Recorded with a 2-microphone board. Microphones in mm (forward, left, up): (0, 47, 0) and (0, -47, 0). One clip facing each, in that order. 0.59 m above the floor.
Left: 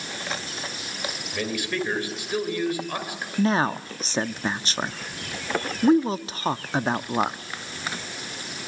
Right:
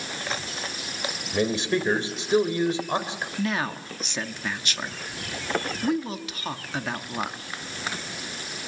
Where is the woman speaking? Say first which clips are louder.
Left 7 dB; 30° left (ahead or behind), 0.6 m.